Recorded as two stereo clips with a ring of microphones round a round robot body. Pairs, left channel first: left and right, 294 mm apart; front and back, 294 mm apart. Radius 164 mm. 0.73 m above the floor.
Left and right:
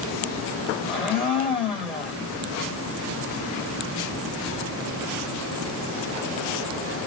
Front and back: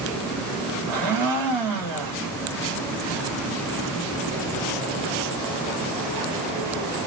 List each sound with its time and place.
0.9 s a blender: straight behind, 3 m